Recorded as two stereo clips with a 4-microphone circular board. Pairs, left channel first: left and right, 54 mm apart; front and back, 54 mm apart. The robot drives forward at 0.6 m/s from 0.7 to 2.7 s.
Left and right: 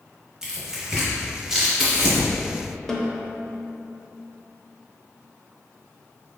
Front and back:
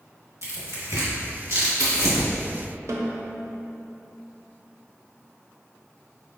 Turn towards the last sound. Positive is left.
turn(degrees=175)